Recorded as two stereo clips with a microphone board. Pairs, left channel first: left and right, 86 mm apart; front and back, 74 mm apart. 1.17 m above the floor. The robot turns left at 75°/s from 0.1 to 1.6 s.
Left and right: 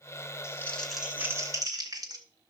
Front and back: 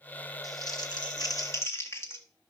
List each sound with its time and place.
0.4 s crumpling: 35° left, 2.5 m; by 2.2 s 50° right, 2.5 m